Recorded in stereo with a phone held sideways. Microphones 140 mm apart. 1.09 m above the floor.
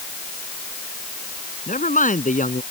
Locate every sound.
1.7 s a man speaking: 70° left (ahead or behind)